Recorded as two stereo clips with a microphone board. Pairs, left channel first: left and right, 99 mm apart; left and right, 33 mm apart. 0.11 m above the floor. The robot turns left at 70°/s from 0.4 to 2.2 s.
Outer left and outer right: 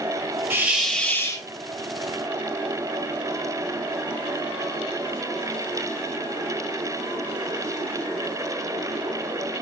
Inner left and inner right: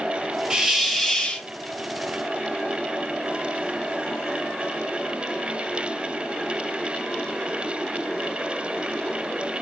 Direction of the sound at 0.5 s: 155° right.